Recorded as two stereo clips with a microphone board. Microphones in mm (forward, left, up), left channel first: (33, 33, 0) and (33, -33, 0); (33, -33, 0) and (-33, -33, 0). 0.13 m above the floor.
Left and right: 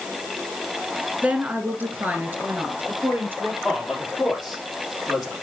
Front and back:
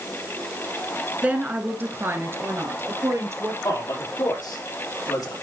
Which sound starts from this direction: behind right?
A woman speaking, at 1.2 s.